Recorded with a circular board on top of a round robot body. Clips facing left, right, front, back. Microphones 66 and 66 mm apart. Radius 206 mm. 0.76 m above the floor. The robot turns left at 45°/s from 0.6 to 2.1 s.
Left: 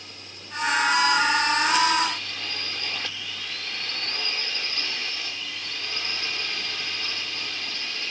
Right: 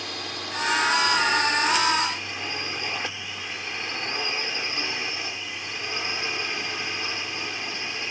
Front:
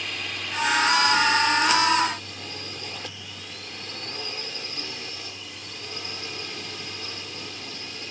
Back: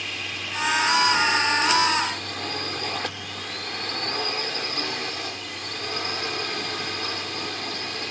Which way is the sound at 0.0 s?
90° right.